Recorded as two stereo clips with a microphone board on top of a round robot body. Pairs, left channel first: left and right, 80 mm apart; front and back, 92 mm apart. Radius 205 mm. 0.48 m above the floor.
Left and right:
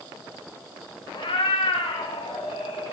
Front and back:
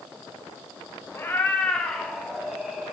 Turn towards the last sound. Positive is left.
turn(degrees=95)